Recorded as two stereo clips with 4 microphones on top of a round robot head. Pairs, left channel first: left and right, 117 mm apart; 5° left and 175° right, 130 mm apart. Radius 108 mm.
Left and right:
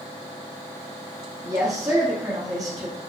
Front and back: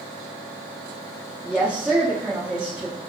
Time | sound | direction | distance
1.4 | a woman speaking | 100° right | 1.1 m